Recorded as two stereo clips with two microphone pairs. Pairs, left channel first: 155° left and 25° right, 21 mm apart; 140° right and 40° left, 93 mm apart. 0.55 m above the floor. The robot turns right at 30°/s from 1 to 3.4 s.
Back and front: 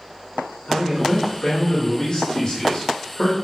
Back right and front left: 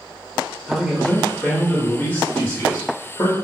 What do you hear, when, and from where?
0.7 s a man speaking: 130° left, 0.7 m; by 3.3 s 160° right, 0.7 m